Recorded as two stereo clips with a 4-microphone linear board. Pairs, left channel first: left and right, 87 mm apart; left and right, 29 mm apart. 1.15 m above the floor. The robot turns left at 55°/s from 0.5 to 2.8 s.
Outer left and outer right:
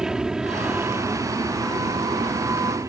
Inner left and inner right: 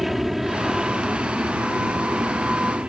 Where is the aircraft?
5° right (ahead or behind); by 2.9 s 40° right (ahead or behind).